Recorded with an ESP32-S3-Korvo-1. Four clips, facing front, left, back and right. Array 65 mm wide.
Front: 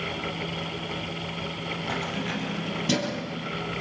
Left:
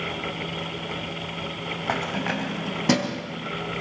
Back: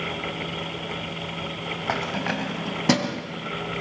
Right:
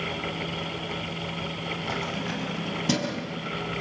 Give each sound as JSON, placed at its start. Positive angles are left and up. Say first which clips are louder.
{"t": 1.9, "sound": "keys jangling", "louder": "left 7 dB, back 5 dB", "azimuth_deg": 135, "distance_m": 3.0}